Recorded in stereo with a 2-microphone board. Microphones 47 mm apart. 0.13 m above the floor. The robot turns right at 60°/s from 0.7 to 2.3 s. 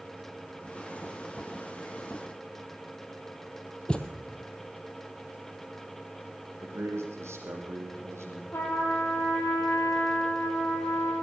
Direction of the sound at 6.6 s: 70° right (ahead or behind).